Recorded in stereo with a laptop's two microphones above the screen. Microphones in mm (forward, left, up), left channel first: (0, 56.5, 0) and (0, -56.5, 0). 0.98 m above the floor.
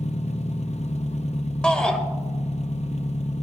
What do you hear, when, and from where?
0.0 s an engine running: 65° left (ahead or behind), 0.9 m
1.6 s a shout: 10° left (ahead or behind), 1.2 m